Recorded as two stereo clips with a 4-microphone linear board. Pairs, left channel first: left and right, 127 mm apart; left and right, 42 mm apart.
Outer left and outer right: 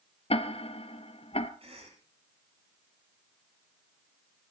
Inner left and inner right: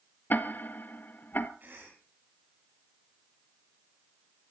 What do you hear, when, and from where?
0.3 s ticking: 50° left (ahead or behind), 1.0 m
1.6 s a cough: 50° right (ahead or behind), 9 m